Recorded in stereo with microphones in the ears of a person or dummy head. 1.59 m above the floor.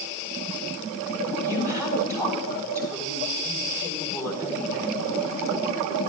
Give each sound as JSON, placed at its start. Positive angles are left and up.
{"t": 1.4, "sound": "a woman speaking", "side_deg": -15, "distance_m": 6.0}